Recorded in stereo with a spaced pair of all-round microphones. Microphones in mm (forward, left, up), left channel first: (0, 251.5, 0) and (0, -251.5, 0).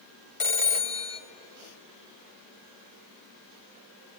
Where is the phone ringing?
75° left (ahead or behind), 1.2 m.